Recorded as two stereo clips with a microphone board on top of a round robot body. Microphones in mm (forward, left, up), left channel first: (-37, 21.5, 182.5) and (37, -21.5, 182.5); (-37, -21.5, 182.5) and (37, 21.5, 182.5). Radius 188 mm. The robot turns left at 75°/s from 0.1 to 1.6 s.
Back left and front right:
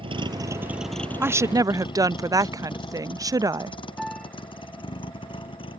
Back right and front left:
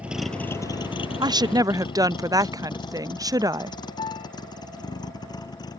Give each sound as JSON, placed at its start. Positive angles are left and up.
{"t": 0.0, "sound": "a vehicle", "azimuth_deg": -45}
{"t": 1.2, "sound": "a woman speaking", "azimuth_deg": 30}
{"t": 4.0, "sound": "a piano", "azimuth_deg": -120}